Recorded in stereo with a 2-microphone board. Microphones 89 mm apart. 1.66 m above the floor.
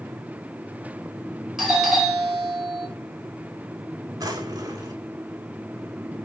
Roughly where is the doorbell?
Centre.